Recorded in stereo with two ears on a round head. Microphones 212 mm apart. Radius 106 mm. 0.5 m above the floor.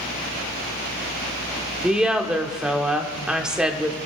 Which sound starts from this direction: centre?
A woman speaking, at 1.8 s.